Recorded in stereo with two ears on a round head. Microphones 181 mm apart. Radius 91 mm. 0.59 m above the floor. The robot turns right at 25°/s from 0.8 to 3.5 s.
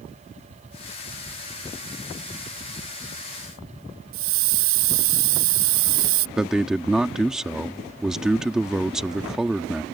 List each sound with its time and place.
4.1 s a hiss: 80° right
6.4 s a man speaking: 5° right (ahead or behind)